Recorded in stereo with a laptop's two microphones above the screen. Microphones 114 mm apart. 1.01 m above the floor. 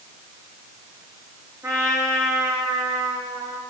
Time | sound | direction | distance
1.6 | a trumpet | 30° right (ahead or behind) | 3 m